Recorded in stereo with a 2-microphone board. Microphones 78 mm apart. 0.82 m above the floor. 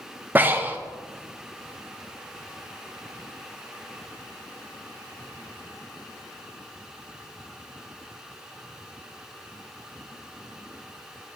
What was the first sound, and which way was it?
Breathing, 25° right (ahead or behind).